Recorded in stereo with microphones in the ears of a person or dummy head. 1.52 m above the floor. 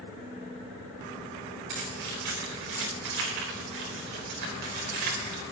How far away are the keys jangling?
About 4.5 m.